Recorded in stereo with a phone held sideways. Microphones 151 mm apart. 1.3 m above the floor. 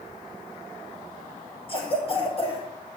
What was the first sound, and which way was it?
A cough, 40° left (ahead or behind).